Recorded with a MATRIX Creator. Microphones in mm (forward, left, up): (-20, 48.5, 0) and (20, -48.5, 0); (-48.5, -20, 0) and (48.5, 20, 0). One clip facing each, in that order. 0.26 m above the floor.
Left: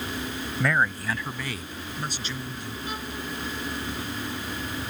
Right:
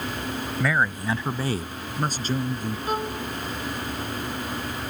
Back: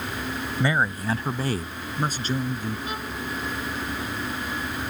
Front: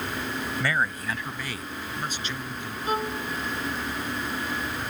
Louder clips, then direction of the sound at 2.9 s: Right 8 dB, front 4 dB; 25° right.